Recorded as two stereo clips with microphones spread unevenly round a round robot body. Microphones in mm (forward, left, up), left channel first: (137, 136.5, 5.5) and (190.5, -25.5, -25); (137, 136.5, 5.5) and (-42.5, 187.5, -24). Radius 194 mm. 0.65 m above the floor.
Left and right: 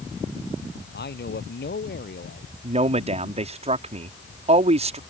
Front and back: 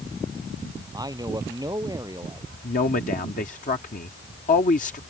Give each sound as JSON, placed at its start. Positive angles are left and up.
{"t": 0.9, "sound": "a man speaking", "azimuth_deg": 95}
{"t": 2.6, "sound": "a man speaking", "azimuth_deg": -70}